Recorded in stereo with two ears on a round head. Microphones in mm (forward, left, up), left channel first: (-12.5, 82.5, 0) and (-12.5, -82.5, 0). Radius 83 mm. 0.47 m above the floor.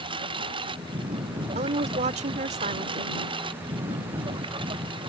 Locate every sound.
0.0 s a lawn mower: 30° right (ahead or behind)
1.6 s a woman speaking: 40° right (ahead or behind)